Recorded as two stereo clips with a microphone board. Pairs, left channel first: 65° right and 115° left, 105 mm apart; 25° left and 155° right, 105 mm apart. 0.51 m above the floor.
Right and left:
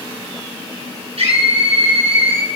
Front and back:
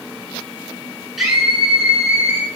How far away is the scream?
About 7 m.